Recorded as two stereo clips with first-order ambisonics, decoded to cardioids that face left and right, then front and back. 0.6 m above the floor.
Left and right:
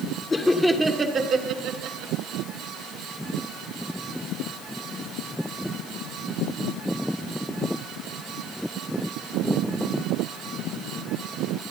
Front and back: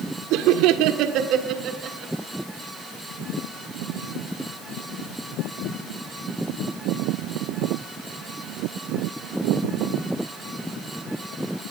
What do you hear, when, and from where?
0.3 s laughter: 165° left, 1.4 m; by 2.1 s 120° right, 1.9 m